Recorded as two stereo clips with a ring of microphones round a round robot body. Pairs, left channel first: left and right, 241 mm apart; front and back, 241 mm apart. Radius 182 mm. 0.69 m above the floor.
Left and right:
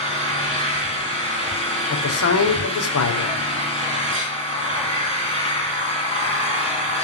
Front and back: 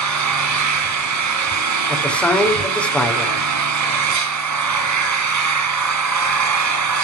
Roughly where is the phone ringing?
I don't hear a phone ringing.